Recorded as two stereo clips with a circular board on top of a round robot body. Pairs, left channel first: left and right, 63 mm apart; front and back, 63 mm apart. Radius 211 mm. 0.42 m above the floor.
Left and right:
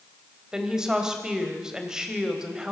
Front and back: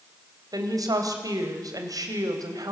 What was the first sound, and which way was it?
A woman speaking, 170° right.